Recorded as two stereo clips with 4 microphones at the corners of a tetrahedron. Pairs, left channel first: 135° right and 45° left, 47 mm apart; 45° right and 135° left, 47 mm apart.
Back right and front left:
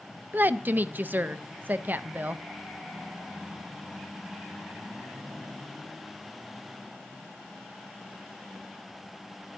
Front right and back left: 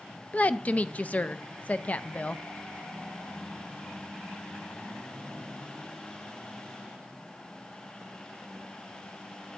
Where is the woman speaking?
10° left, 0.5 m.